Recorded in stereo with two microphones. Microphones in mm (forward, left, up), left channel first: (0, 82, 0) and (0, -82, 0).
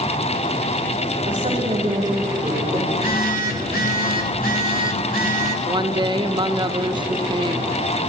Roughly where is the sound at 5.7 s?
Right.